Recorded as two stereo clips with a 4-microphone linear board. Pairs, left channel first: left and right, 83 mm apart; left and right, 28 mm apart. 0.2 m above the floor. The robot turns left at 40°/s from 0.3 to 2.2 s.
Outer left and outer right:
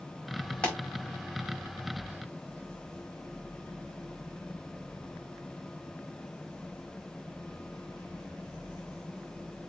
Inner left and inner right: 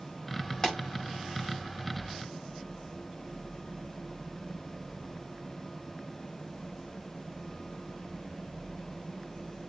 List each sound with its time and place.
0.6 s a pop: 15° left (ahead or behind), 5 m; by 0.8 s 20° left (ahead or behind), 5 m